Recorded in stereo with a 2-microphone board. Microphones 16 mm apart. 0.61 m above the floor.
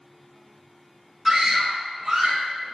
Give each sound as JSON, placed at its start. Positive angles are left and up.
{"t": 1.2, "sound": "a scream", "side_deg": -20, "distance_m": 1.1}